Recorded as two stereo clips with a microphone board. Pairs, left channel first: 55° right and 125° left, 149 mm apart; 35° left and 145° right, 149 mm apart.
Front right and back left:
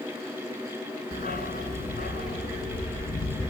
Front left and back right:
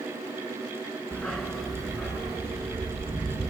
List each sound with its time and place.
1.1 s a dog barking: 50° right, 1.9 m; by 3.5 s 60° right, 4 m